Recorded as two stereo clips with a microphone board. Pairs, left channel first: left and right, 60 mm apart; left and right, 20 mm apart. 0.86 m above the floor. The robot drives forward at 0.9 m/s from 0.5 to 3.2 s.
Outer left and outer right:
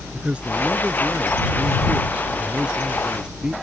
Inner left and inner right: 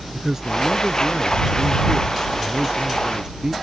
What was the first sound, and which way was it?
A man speaking, 15° right (ahead or behind).